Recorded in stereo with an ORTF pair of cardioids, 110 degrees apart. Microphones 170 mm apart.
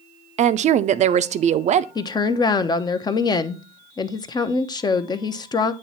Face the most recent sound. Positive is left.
turn(degrees=25)